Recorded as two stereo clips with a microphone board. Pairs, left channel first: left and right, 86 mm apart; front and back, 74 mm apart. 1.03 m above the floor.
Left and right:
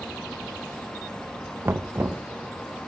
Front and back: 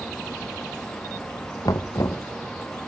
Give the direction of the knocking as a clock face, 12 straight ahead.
1 o'clock.